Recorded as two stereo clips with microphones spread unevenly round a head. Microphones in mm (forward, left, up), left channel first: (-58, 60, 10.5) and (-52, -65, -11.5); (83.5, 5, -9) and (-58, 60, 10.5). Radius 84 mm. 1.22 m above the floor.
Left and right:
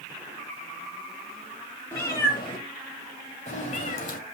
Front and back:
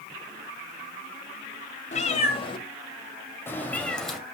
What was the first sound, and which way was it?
A cat meowing, 25° left.